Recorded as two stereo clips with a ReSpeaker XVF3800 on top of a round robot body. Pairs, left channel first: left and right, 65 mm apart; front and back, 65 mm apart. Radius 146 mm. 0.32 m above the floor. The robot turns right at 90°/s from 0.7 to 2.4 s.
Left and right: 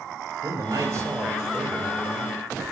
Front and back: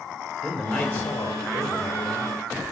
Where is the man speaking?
90° right, 2 m; by 2.4 s 60° left, 2 m.